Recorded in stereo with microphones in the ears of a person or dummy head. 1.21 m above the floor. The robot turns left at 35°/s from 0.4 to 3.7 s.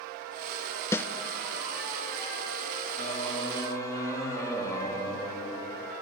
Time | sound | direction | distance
0.9 | a snare drum | 15° left (ahead or behind) | 0.6 m
3.0 | singing | 45° left (ahead or behind) | 1.3 m